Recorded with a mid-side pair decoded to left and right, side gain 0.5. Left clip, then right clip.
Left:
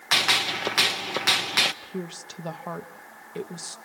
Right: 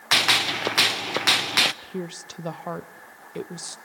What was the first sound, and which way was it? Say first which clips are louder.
A gunshot: right 2 dB; 20° right.